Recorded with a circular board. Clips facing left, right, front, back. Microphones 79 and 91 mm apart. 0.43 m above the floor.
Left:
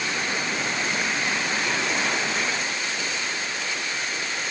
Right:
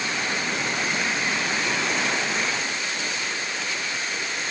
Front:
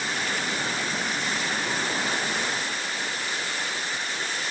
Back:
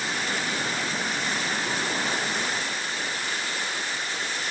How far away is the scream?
I don't hear a scream.